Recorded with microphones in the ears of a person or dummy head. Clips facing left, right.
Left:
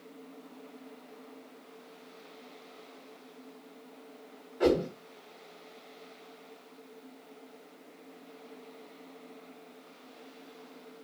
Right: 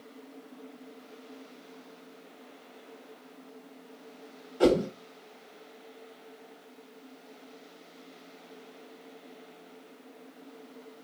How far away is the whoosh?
About 1.3 m.